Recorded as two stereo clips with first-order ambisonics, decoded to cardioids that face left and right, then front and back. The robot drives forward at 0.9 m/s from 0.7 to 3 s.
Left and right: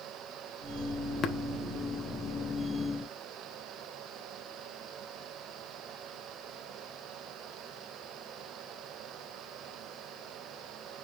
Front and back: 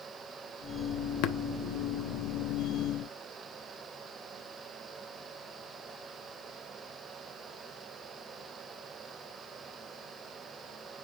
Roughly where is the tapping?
Ahead left.